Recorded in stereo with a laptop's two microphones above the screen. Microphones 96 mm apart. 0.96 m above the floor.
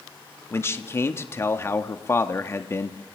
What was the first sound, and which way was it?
A man speaking, 25° left (ahead or behind).